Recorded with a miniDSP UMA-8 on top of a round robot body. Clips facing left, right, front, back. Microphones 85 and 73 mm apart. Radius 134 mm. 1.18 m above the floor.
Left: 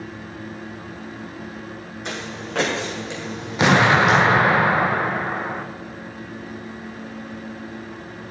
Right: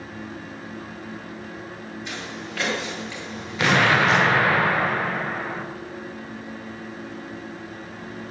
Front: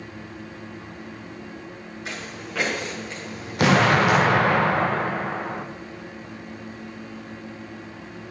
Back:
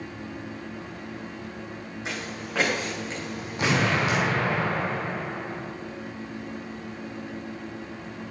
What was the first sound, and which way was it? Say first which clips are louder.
Footsteps: left 6 dB, back 1 dB; 110° left.